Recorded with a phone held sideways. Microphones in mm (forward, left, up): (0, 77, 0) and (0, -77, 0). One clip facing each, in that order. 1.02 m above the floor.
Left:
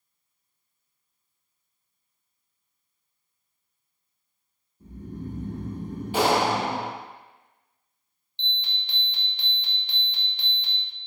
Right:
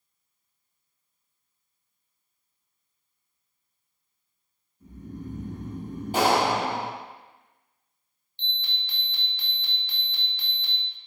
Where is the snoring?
30° left (ahead or behind), 0.7 m.